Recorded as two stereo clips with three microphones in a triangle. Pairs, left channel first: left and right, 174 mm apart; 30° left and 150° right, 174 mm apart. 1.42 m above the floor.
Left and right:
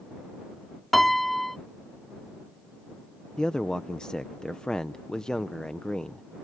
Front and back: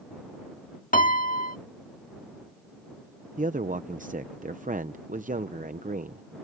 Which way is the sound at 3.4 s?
175° left.